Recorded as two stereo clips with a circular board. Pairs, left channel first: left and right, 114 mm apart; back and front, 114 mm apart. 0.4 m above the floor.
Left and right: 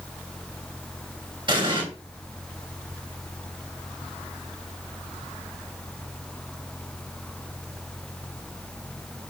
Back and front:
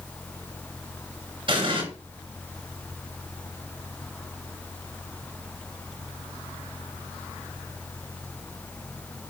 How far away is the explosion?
About 5.5 m.